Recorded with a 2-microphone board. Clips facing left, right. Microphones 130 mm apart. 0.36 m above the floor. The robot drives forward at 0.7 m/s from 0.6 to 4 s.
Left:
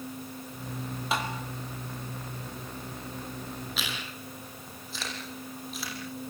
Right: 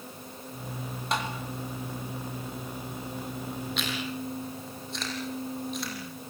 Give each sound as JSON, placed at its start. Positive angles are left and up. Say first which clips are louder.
{"t": 1.1, "sound": "tapping", "louder": "even", "side_deg": 5, "distance_m": 4.0}
{"t": 3.8, "sound": "chewing", "louder": "right 6 dB", "side_deg": 0, "distance_m": 9.0}